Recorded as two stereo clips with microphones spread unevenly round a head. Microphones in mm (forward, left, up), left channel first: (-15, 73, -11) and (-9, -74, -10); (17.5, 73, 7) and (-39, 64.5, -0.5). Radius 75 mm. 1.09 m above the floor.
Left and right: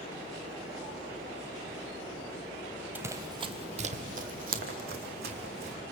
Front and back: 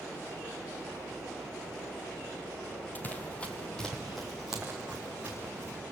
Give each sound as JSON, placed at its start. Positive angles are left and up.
{"t": 3.0, "sound": "running footsteps", "azimuth_deg": -15, "distance_m": 1.3}